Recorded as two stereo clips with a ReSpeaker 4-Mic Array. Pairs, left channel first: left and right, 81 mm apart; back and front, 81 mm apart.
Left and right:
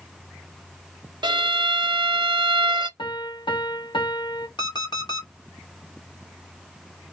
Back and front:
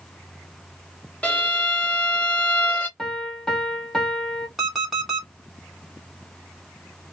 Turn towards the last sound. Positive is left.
turn(degrees=85)